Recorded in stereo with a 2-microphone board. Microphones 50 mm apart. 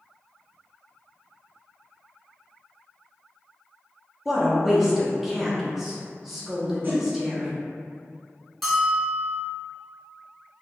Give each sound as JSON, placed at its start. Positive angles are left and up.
{"t": 4.2, "sound": "a woman speaking", "side_deg": -5, "distance_m": 0.8}
{"t": 6.8, "sound": "a whoosh", "side_deg": -40, "distance_m": 1.0}
{"t": 8.6, "sound": "a bell", "side_deg": 0, "distance_m": 1.1}